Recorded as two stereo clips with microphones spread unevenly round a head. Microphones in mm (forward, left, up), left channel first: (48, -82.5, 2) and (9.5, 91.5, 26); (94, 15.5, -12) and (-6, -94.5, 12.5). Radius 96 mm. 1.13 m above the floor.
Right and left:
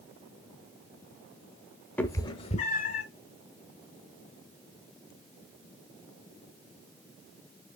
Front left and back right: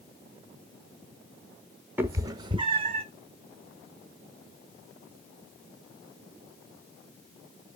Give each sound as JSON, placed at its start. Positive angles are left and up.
{"t": 2.0, "sound": "a cat meowing", "azimuth_deg": -165, "distance_m": 0.8}